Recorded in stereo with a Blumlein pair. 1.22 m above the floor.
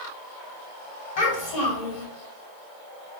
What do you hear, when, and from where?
1.2 s a child speaking: 50° left, 1.7 m